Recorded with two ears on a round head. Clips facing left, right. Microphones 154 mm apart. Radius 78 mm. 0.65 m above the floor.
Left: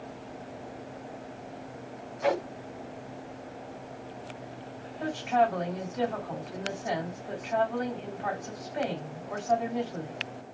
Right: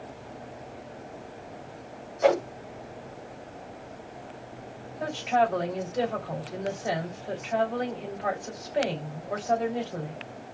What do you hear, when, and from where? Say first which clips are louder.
2.2 s a whoosh: right 6 dB; 55° right (ahead or behind), 1.5 m
5.0 s a woman speaking: right 1 dB; 35° right (ahead or behind), 3 m